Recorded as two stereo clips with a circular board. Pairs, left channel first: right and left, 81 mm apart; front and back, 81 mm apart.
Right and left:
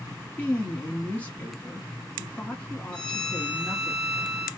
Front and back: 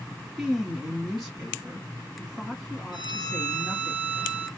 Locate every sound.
0.4 s a woman speaking: 90° right, 1.0 m
2.9 s a violin: 10° right, 2 m